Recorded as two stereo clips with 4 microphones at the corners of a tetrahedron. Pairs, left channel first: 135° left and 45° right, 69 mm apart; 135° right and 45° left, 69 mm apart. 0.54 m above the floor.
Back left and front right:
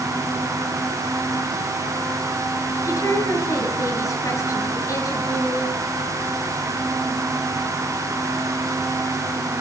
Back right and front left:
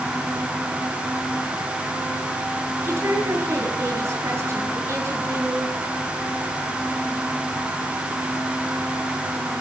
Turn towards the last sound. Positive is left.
turn(degrees=95)